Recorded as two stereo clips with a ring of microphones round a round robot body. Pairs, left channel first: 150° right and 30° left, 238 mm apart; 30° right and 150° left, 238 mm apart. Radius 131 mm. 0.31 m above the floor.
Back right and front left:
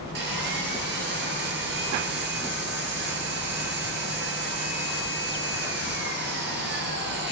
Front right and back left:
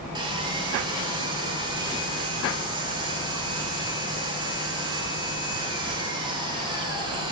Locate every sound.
0.1 s sawing: 75° left, 1.5 m